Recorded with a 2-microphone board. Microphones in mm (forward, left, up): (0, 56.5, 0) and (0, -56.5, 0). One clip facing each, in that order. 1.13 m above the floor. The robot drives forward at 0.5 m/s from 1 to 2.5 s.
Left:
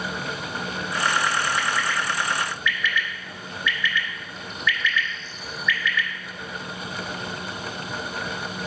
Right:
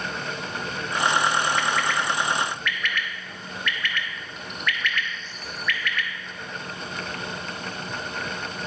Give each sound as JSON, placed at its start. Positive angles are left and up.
{"t": 1.6, "sound": "a bird", "side_deg": -65, "distance_m": 1.1}